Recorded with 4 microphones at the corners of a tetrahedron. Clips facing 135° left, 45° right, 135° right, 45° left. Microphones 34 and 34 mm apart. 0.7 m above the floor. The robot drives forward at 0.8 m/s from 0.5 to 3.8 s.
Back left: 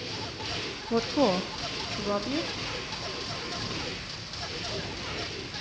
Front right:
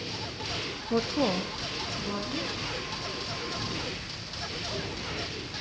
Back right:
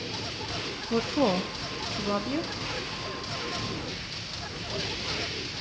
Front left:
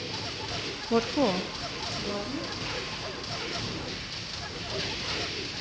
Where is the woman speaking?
45° left, 0.5 m; by 2.5 s 175° left, 1.3 m.